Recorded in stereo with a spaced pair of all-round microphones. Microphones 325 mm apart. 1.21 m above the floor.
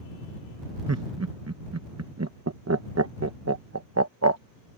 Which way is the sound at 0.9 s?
50° right (ahead or behind).